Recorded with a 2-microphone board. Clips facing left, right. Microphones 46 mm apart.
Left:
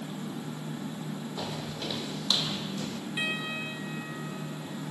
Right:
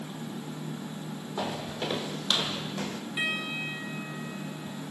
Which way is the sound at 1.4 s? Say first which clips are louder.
Right 7 dB; 25° right (ahead or behind).